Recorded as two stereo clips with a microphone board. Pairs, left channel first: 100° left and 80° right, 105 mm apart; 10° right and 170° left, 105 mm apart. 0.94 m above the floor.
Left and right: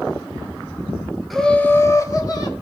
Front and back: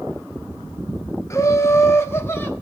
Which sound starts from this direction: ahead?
Laughter, at 1.3 s.